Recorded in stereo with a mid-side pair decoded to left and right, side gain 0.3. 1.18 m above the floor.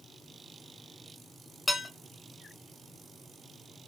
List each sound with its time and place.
1.7 s dishes clattering: 30° left, 1.5 m